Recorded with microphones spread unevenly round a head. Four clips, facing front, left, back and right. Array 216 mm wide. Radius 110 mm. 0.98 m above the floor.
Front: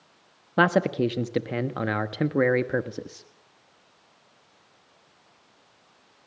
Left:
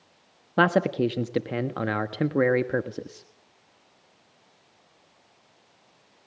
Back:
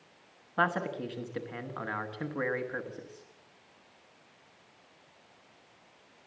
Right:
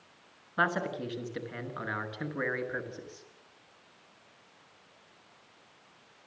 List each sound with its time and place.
0.6 s a man speaking: 40° left, 1.4 m